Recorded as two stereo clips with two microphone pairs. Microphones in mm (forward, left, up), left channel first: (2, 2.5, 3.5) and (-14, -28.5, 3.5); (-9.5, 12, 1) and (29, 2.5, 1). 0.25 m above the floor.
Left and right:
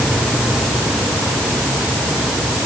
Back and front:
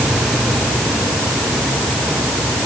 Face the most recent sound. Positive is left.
No sound to turn to.